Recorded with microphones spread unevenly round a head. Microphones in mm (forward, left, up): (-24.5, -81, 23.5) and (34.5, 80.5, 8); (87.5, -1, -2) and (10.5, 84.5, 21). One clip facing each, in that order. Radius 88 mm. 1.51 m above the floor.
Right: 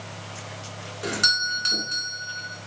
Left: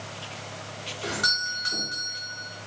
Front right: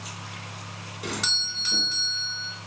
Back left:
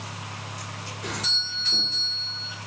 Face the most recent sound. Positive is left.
turn(degrees=-45)